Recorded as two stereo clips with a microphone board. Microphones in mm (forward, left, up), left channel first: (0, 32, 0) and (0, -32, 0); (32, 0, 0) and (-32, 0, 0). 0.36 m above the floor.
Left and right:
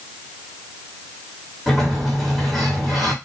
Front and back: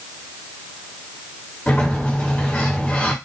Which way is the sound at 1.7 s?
5° left.